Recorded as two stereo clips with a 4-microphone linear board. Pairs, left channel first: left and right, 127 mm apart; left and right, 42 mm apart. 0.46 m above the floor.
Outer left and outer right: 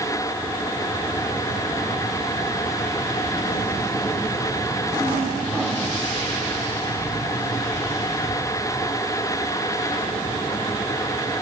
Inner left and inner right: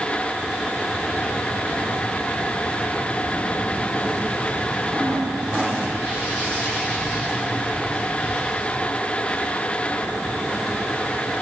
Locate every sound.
Only background noise.